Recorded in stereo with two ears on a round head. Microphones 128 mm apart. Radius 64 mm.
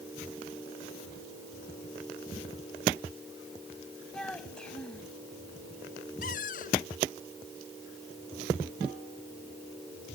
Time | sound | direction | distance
4.1 | a child speaking | 5° left (ahead or behind) | ?
6.2 | a cupboard door | 65° left (ahead or behind) | ?